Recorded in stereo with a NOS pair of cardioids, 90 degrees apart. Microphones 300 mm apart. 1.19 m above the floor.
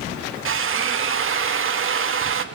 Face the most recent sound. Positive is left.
turn(degrees=-45)